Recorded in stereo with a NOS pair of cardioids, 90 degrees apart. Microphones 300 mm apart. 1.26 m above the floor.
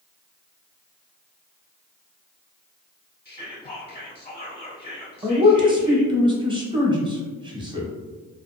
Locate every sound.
3.2 s whispering: 20° left, 0.7 m
5.2 s a man speaking: 15° right, 0.9 m